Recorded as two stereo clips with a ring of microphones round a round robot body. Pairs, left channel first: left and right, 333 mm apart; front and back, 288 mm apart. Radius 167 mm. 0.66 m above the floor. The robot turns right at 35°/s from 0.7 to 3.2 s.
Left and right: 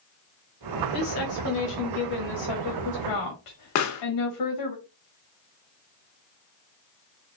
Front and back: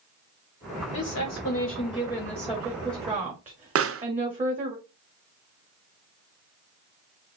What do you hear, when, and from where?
0.9 s a woman speaking: 35° left, 1.6 m; by 4.8 s 115° left, 1.6 m
3.8 s a pop: 135° left, 0.7 m